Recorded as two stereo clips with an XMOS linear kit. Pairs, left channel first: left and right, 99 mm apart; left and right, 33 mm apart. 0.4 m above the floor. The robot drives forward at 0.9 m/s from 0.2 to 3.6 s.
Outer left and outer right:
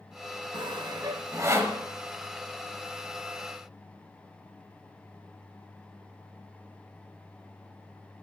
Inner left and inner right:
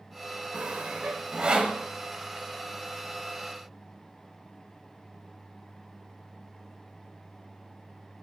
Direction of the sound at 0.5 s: 55° right (ahead or behind).